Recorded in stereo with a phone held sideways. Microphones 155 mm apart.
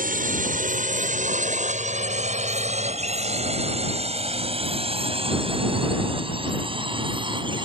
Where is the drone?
60° right (ahead or behind); by 7.7 s 30° right (ahead or behind).